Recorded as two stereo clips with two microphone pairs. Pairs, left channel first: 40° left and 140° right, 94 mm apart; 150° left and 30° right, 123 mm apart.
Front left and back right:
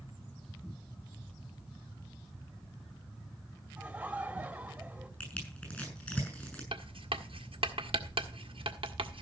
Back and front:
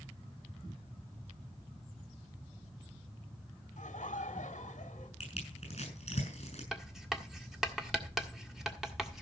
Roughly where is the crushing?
Behind left.